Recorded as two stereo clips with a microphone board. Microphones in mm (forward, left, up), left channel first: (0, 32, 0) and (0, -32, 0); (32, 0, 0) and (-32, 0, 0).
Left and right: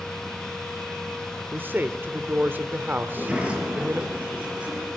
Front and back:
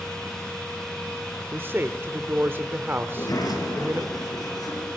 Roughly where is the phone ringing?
I don't hear a phone ringing.